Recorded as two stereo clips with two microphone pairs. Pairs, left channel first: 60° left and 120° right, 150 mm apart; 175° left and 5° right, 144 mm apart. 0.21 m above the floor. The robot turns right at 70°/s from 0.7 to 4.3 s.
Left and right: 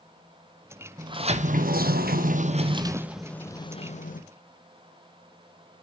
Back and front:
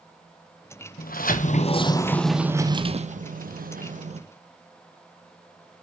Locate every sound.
1.0 s a sliding door: 175° left, 1.3 m; by 4.2 s 40° left, 1.3 m